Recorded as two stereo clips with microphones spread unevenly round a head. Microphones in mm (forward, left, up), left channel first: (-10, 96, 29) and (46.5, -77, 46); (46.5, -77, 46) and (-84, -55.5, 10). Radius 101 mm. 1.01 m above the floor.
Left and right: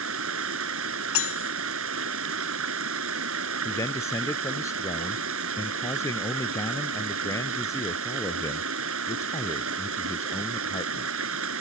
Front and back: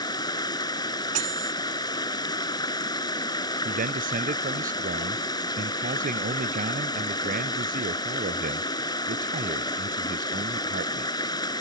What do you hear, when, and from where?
0.0 s running water: 65° right
1.1 s cutlery clinking: 115° left
3.6 s a man speaking: 175° right